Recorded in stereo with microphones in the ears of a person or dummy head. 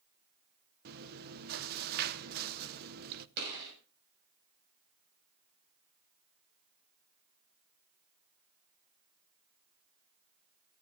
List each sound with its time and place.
0.8 s chewing: 45° right (ahead or behind), 1.0 m
3.4 s a gunshot: 65° right (ahead or behind), 7 m